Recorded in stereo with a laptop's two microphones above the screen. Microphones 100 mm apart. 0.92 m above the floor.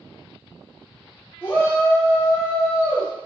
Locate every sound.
1.4 s a shout: 20° left (ahead or behind), 0.7 m; by 3.1 s 25° left (ahead or behind), 0.9 m